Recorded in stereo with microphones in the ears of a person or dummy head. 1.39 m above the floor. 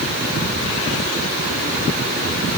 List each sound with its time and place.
Only background noise.